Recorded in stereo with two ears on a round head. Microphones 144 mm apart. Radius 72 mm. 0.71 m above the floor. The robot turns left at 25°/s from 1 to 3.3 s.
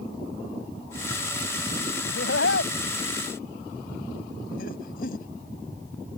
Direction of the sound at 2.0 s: 80° left.